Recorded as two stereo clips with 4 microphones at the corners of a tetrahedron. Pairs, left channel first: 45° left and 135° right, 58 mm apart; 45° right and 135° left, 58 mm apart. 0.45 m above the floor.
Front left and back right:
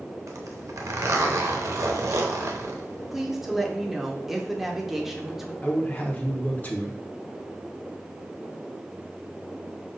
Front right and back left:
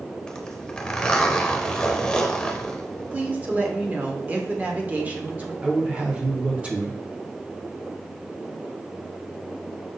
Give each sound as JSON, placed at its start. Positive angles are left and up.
{"t": 0.3, "sound": "a zipper", "azimuth_deg": -120, "distance_m": 0.7}
{"t": 3.1, "sound": "a woman speaking", "azimuth_deg": 145, "distance_m": 0.8}
{"t": 5.6, "sound": "a man speaking", "azimuth_deg": 85, "distance_m": 0.9}